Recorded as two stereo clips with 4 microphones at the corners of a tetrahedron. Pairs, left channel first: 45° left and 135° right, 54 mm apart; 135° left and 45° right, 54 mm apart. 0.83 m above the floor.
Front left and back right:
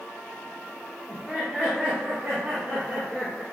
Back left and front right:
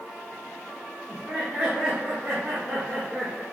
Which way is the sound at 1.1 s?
70° right.